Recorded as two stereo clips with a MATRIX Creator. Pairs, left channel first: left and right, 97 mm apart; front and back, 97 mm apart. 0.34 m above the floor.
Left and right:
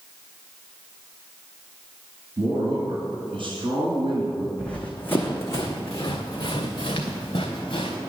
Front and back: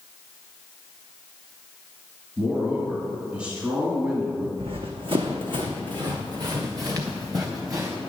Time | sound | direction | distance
2.4 | a man speaking | 110° right | 1.9 m
4.6 | running footsteps | 170° left | 1.1 m